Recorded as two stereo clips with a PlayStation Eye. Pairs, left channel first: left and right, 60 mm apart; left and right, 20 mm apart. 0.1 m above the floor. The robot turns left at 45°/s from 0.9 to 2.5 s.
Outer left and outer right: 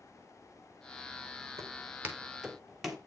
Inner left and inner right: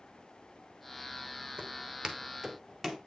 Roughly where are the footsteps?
Right.